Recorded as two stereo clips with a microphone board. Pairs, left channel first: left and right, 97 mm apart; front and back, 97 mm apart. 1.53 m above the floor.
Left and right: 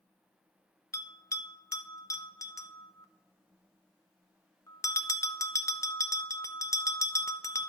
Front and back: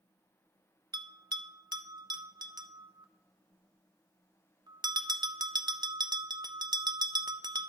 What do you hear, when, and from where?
0.9 s a bell: 140° left, 0.6 m